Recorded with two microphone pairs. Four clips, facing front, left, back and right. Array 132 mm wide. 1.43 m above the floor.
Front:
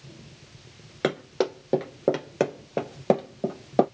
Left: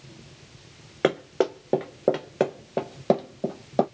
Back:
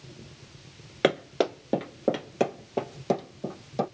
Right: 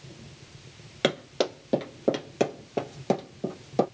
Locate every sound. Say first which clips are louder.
1.0 s running footsteps: left 4 dB, back 1 dB; 125° left, 1.5 m; by 3.9 s 25° left, 1.7 m